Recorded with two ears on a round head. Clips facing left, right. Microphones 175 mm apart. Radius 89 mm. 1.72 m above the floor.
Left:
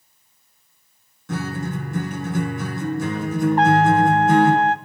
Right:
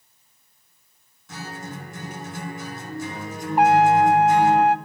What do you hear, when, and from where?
1.3 s a guitar: 50° left (ahead or behind), 3.5 m
3.6 s a trumpet: 10° right (ahead or behind), 0.6 m